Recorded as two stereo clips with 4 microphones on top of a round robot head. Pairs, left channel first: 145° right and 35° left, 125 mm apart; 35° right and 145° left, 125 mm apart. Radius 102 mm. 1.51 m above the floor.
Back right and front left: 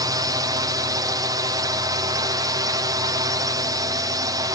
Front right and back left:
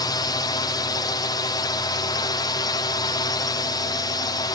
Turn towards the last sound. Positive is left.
turn(degrees=-5)